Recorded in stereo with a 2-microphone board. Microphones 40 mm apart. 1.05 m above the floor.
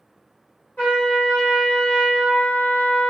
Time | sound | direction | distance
0.8 | a trumpet | 45° left (ahead or behind) | 1.5 m